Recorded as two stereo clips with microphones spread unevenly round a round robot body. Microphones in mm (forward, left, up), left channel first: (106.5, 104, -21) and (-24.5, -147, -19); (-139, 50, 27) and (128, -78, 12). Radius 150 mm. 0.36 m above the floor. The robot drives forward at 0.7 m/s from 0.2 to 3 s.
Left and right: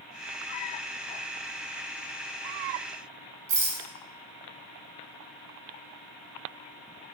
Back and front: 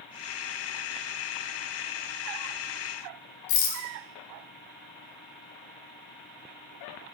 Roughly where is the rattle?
Behind.